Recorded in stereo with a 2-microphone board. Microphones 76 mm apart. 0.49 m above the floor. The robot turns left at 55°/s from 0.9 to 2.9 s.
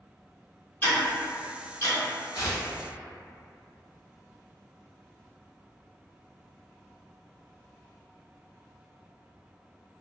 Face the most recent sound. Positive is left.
turn(degrees=25)  # may be behind; listen again after turning